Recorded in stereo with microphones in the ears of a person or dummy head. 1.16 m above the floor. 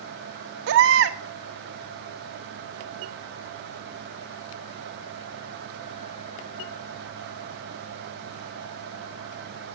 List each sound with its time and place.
0.7 s a baby crying: 70° right (ahead or behind), 1.3 m